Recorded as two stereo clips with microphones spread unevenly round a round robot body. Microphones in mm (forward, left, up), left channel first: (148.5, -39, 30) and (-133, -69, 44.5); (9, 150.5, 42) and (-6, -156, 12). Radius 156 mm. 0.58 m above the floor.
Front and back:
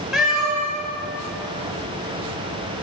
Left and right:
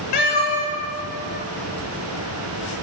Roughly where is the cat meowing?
Left.